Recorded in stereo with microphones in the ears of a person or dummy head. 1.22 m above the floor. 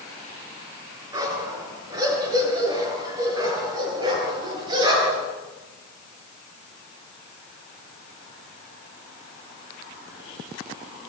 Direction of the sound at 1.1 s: 20° right (ahead or behind).